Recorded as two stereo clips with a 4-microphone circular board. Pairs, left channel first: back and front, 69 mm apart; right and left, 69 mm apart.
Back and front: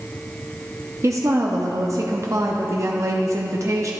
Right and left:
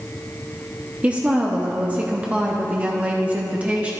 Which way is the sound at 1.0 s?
25° left.